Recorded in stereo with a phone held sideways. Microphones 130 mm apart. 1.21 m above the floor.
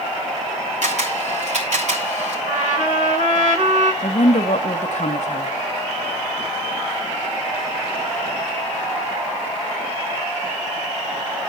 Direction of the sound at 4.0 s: 65° left (ahead or behind).